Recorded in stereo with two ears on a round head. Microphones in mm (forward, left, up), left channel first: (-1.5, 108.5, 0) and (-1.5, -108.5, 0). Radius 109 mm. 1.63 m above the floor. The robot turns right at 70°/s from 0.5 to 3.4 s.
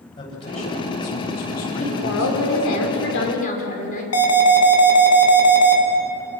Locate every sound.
0.2 s a man speaking: 20° left, 8.5 m; by 2.5 s 160° left, 8.5 m
1.8 s a woman speaking: 35° left, 5.5 m; by 4.0 s 145° left, 5.5 m
4.1 s an alarm: 65° left (ahead or behind), 4 m